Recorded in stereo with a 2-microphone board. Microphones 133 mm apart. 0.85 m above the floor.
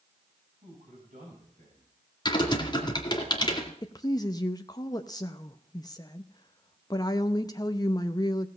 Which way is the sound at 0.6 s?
85° right.